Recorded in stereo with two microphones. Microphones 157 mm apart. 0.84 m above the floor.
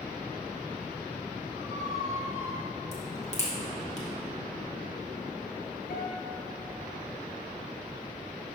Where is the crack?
45° left (ahead or behind), 1.2 m.